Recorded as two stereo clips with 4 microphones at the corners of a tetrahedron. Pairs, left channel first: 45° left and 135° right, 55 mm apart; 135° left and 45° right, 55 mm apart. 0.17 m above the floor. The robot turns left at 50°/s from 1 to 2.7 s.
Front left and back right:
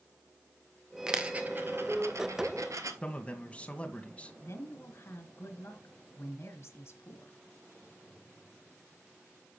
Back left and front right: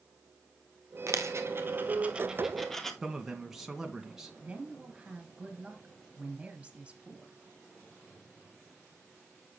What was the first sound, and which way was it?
A dropped coin, 60° right.